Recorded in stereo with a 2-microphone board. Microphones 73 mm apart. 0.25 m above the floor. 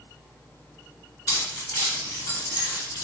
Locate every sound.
1.3 s keys jangling: 50° left (ahead or behind), 2.0 m; by 3.0 s 55° left (ahead or behind), 1.6 m